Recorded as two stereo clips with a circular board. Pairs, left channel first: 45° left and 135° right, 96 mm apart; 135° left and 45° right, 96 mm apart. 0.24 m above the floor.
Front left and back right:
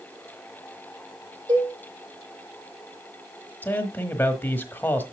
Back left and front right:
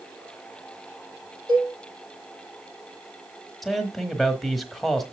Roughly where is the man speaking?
Ahead left.